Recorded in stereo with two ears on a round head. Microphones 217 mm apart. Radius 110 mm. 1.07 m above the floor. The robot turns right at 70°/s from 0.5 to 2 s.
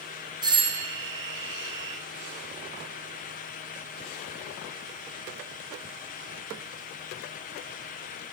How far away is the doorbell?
About 0.8 m.